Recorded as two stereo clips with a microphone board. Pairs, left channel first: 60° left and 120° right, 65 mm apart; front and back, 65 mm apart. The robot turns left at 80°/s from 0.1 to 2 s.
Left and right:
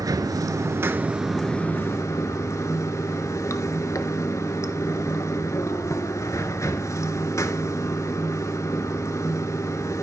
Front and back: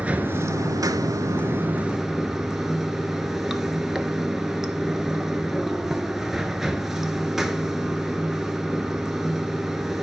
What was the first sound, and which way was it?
Running water, 110° right.